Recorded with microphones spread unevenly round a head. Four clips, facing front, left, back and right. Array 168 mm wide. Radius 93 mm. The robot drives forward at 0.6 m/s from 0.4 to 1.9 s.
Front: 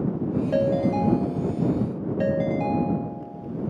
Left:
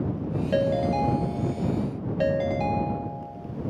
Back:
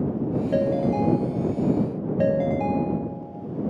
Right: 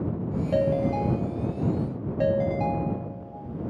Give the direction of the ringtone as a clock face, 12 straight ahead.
12 o'clock.